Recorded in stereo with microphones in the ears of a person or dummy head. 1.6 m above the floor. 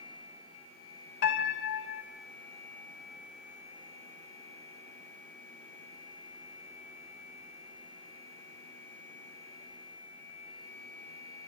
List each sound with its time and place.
1.2 s a piano: 60° left (ahead or behind), 2.5 m